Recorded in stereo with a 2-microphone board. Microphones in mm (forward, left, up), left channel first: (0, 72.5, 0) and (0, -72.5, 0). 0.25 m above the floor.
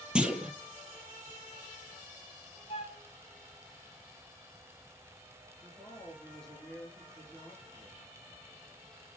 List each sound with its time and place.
0.1 s a clunk: 5° right (ahead or behind), 1.6 m
2.7 s a flute: 45° left (ahead or behind), 1.8 m
5.6 s a woman speaking: 5° left (ahead or behind), 4 m